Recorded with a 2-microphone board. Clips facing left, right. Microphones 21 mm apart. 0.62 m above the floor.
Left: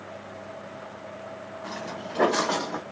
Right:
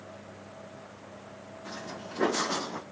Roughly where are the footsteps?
Left.